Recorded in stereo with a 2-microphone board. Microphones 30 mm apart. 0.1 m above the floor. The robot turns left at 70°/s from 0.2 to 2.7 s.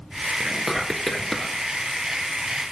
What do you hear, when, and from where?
0.4 s whispering: 20° right (ahead or behind), 1.3 m; by 1.6 s 15° left (ahead or behind), 1.3 m